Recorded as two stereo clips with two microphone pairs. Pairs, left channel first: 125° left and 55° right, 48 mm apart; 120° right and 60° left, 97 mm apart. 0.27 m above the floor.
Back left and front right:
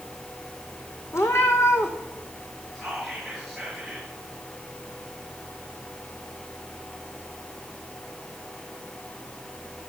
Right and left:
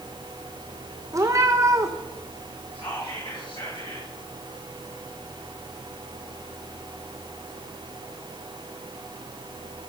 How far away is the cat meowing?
About 1.5 m.